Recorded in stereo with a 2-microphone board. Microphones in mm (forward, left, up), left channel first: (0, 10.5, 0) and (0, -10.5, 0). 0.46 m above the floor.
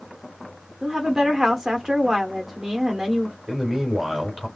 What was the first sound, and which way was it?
A woman speaking, 20° right (ahead or behind).